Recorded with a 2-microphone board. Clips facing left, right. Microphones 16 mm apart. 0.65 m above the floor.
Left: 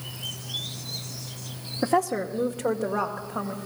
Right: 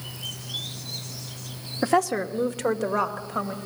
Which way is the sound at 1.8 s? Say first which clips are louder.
Right 2 dB; 55° right (ahead or behind).